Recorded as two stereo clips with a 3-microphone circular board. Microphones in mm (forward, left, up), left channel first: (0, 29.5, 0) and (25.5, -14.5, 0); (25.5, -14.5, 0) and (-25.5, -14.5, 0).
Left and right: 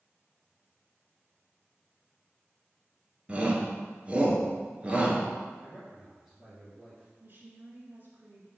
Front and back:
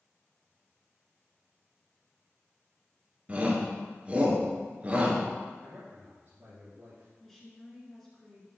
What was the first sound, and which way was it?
A shout, 120° right.